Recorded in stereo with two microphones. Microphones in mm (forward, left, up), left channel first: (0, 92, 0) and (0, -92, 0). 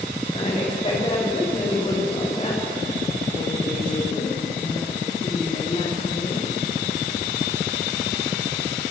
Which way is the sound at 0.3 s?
30° left (ahead or behind).